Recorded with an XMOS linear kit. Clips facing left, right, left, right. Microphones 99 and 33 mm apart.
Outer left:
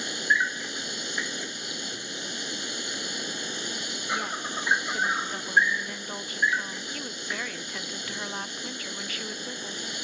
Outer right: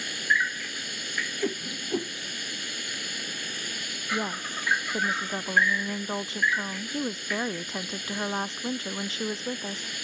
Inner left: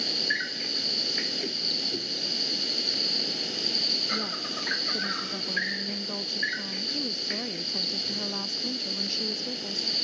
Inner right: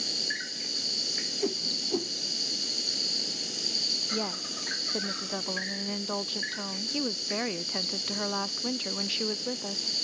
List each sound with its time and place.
0.0 s an insect: 20° left (ahead or behind)
1.4 s a whoosh: 50° right (ahead or behind)
4.1 s a woman speaking: 25° right (ahead or behind)